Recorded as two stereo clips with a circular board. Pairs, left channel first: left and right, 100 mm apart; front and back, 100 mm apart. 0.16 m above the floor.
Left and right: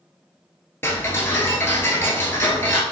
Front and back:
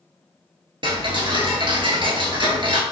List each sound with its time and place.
0.8 s ticking: 155° left, 0.8 m